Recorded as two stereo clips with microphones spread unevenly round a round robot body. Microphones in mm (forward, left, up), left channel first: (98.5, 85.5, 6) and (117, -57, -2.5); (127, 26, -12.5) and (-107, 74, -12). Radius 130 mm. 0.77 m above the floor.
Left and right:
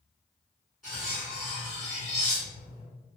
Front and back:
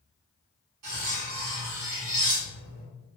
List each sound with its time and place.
0.8 s cutlery clinking: 170° right, 1.2 m